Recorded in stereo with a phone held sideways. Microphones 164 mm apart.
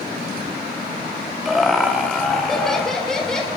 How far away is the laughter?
About 4 m.